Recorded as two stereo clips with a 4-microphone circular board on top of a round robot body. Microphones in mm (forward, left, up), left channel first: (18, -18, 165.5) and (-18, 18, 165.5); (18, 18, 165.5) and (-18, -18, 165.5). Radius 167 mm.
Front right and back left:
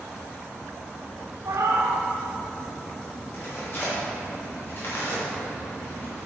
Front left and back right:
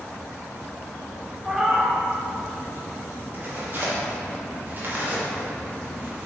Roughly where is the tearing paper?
Right.